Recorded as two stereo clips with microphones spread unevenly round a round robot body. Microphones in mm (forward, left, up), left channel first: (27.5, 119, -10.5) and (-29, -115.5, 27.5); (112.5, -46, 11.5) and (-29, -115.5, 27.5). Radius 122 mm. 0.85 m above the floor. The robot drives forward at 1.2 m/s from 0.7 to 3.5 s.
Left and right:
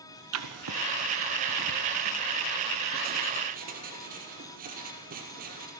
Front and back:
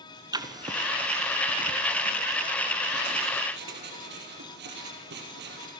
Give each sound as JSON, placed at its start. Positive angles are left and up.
{"t": 0.3, "sound": "writing", "azimuth_deg": -95, "distance_m": 1.6}